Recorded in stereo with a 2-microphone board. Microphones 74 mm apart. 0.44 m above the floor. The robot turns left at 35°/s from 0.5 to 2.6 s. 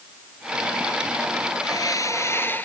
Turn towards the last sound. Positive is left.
turn(degrees=25)